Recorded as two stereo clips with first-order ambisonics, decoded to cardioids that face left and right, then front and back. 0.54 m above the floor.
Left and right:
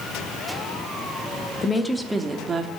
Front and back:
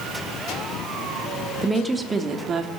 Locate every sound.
1.6 s a woman speaking: 85° left, 0.7 m; by 2.7 s 140° right, 0.8 m